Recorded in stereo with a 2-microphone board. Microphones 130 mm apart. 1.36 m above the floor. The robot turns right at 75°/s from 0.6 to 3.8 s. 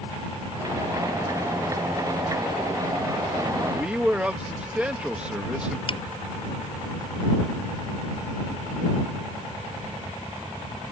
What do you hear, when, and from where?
3.7 s a man speaking: 5° right (ahead or behind); by 5.8 s 10° right (ahead or behind)
5.9 s a finger snap: 45° left (ahead or behind)